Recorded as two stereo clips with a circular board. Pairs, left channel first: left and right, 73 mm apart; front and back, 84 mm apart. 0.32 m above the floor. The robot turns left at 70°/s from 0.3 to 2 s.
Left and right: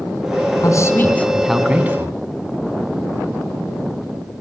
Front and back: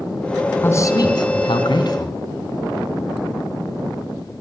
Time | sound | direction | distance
0.6 | a man speaking | 60° left | 3.5 m